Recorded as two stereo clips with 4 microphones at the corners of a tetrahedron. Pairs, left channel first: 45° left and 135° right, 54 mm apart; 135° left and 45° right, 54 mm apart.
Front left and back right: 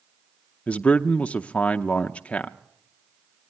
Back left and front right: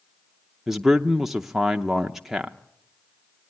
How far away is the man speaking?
About 0.6 m.